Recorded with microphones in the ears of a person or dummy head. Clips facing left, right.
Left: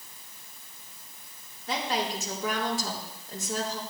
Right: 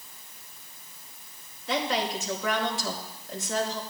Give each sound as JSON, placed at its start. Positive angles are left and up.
{"t": 1.7, "sound": "a woman speaking", "side_deg": 40, "distance_m": 4.0}